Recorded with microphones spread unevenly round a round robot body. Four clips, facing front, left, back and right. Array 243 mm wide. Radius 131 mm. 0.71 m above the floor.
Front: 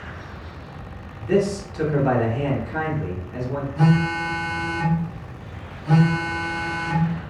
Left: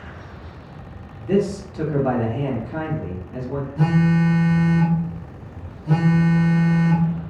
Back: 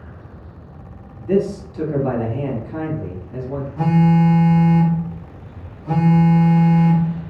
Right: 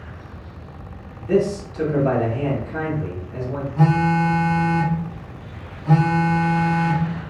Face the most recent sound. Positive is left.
turn(degrees=-150)